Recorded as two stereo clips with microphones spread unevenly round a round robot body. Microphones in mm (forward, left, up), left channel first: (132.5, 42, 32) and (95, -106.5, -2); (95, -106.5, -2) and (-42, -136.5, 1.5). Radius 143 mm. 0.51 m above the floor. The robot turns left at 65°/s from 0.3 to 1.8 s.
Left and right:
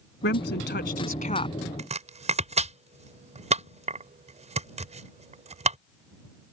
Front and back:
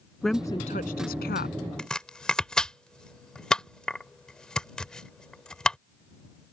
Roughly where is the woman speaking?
Left.